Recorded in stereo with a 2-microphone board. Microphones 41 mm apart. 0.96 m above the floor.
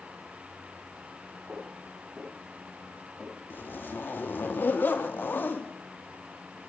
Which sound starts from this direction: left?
A zipper, at 3.5 s.